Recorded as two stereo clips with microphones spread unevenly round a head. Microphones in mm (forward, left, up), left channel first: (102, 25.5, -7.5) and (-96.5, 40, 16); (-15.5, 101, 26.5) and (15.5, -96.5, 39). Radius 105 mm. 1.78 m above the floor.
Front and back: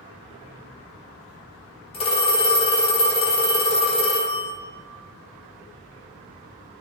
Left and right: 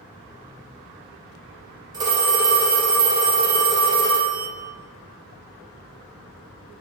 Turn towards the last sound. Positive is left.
turn(degrees=-45)